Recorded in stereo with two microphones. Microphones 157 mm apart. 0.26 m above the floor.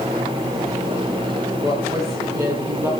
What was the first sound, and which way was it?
A woman speaking, 20° right (ahead or behind).